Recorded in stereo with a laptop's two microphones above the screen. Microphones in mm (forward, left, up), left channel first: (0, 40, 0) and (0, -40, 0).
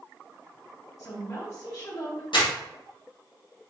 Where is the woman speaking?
45° left (ahead or behind), 1.9 m.